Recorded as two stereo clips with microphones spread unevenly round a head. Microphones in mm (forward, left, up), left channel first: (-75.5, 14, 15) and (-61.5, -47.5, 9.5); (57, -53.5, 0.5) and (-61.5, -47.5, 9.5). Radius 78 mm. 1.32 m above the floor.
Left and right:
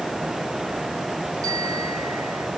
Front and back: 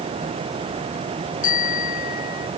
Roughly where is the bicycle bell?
Ahead.